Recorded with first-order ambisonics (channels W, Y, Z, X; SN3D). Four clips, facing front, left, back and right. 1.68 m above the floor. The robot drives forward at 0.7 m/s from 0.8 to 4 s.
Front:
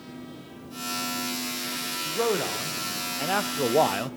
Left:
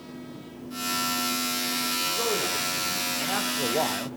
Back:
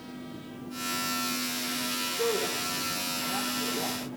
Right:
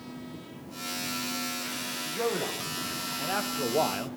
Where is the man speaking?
Straight ahead, 1.8 m.